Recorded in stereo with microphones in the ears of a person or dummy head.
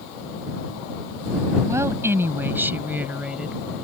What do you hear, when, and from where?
1.7 s a woman speaking: 20° right (ahead or behind); by 3.6 s 10° right (ahead or behind)